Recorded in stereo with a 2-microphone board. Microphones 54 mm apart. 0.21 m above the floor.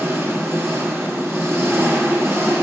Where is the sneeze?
I don't hear a sneeze.